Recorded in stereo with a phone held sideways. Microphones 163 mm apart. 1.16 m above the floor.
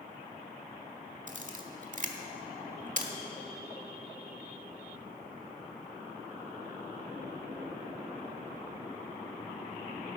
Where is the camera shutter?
50° right (ahead or behind), 1.2 m.